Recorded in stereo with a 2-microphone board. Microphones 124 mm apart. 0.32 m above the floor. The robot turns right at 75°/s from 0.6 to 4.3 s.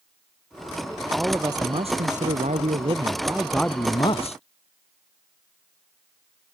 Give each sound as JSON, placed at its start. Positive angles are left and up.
{"t": 1.1, "sound": "a man speaking", "azimuth_deg": 180}